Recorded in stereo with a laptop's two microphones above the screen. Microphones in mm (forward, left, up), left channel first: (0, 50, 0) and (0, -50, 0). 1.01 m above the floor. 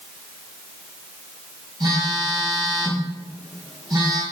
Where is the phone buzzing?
40° right (ahead or behind), 3.5 m.